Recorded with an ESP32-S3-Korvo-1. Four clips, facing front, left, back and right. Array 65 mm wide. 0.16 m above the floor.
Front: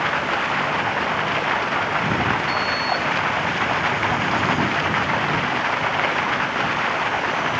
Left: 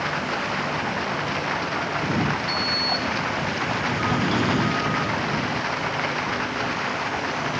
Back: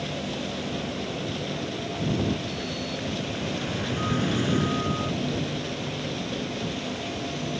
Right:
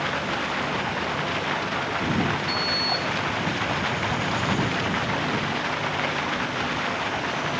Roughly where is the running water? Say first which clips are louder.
Left 1 dB, front 10 dB; ahead.